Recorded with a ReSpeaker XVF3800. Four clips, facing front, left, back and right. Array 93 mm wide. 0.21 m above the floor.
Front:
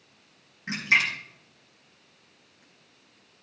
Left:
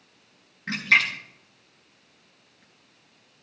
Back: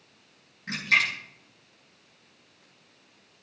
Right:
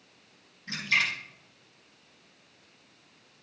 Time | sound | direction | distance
0.7 | a splash | 65° left | 3.5 m